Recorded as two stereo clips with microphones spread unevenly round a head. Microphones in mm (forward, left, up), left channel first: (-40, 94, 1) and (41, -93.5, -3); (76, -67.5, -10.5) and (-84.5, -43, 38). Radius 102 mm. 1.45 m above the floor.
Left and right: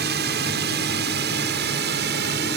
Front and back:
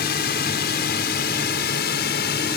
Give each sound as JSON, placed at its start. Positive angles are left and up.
{"t": 0.0, "sound": "a drone", "azimuth_deg": -25}